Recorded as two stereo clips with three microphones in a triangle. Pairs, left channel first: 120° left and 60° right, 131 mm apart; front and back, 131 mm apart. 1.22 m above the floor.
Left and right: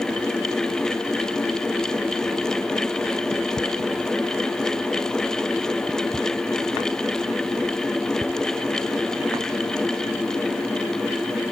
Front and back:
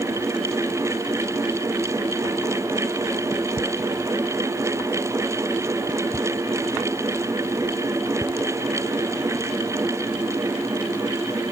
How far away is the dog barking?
No dog barking in this recording.